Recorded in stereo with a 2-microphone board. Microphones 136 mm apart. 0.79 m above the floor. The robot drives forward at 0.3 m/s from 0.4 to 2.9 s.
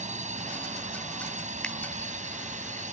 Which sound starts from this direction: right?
A drone, at 0.0 s.